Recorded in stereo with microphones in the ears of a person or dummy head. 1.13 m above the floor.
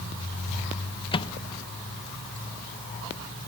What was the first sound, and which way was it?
A microwave, 25° left (ahead or behind).